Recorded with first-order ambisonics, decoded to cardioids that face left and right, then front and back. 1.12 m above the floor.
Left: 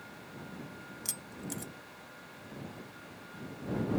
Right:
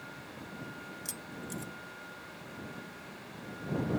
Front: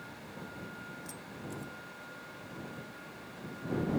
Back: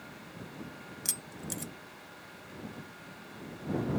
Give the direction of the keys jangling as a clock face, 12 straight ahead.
6 o'clock.